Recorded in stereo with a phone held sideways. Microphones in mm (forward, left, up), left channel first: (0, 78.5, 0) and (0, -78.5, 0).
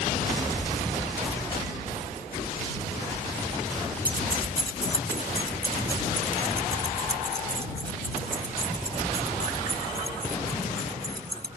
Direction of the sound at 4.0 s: 65° right (ahead or behind).